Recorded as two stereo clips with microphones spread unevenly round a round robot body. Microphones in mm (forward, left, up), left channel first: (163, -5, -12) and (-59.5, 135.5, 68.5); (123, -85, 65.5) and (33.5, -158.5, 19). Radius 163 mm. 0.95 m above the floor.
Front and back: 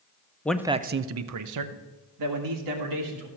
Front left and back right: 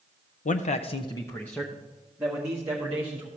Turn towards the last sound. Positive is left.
turn(degrees=155)